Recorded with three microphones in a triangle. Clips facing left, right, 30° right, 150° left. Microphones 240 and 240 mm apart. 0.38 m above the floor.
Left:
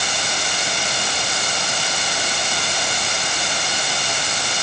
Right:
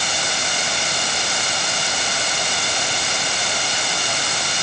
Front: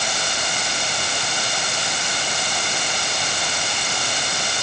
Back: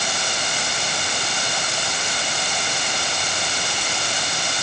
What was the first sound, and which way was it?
Only background noise.